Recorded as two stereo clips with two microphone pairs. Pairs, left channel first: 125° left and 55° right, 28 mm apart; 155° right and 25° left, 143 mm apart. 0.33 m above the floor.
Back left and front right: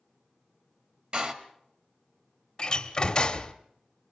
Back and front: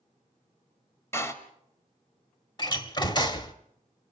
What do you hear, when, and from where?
1.1 s a door slam: 90° right, 1.3 m
2.6 s a door slam: 170° left, 1.0 m